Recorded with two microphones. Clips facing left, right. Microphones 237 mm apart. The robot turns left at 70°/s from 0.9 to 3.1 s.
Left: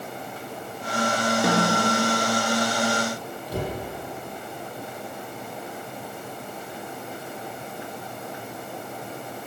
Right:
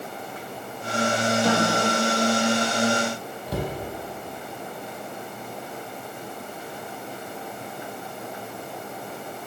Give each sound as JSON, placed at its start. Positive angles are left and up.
{"t": 1.4, "sound": "a snare drum", "azimuth_deg": 70, "distance_m": 3.0}
{"t": 3.5, "sound": "a cupboard door", "side_deg": -65, "distance_m": 4.5}